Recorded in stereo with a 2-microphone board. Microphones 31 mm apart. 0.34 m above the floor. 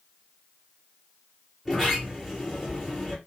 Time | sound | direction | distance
1.6 | a sliding door | 5° left (ahead or behind) | 4 m